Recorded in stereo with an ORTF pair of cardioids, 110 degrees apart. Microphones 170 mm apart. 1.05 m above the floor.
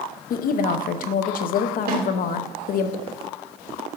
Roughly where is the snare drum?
Ahead right.